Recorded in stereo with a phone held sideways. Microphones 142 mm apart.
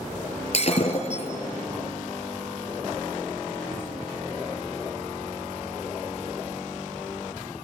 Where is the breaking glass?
45° left (ahead or behind), 5 m.